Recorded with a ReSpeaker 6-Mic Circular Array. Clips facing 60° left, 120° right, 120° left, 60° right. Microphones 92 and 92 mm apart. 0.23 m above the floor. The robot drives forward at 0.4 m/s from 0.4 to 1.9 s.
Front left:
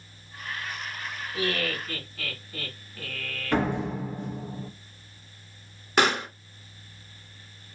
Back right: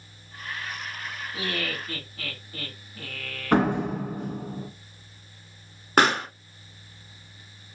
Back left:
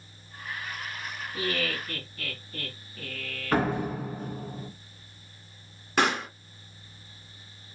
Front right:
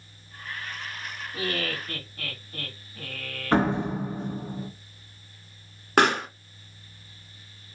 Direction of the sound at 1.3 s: 45° right.